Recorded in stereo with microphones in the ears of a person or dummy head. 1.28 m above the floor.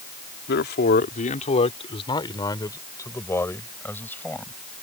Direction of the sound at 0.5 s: 60° left (ahead or behind).